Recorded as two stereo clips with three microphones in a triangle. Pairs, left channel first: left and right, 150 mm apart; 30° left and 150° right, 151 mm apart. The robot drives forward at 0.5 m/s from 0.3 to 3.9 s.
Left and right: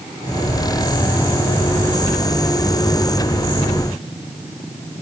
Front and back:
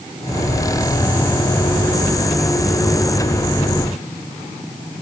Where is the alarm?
No alarm in this recording.